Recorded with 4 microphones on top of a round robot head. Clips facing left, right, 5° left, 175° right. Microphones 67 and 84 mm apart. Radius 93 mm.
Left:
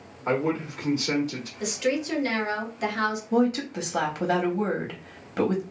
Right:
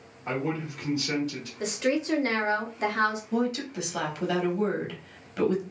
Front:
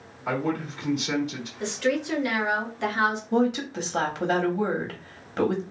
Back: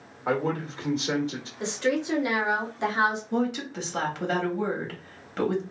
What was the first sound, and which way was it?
A man speaking, 140° left.